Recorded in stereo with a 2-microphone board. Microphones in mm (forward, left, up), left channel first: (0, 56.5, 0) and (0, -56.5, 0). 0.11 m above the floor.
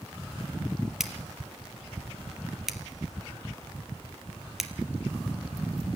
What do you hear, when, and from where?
1.0 s scissors: 5° right (ahead or behind), 1.6 m